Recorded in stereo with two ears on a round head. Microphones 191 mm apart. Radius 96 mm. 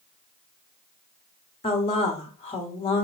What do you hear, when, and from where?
1.6 s a woman speaking: 25° left (ahead or behind), 1.4 m